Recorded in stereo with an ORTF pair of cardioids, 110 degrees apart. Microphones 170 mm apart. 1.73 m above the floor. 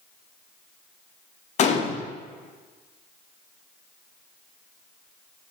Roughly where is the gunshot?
Ahead left.